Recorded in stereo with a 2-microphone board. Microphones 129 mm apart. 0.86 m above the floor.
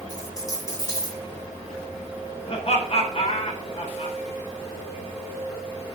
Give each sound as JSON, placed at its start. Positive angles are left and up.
{"t": 0.1, "sound": "a dropped coin", "side_deg": 30, "distance_m": 6.5}
{"t": 2.5, "sound": "laughter", "side_deg": 50, "distance_m": 3.0}